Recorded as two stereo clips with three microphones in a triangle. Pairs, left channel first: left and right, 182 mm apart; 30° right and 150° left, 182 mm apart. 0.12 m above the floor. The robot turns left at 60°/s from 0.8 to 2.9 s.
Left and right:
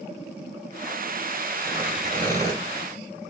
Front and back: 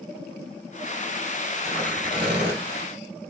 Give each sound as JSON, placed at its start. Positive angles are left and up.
{"t": 1.6, "sound": "tearing paper", "azimuth_deg": -150, "distance_m": 2.5}